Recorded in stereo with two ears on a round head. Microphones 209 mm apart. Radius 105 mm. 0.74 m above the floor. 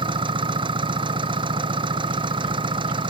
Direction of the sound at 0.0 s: 20° right (ahead or behind).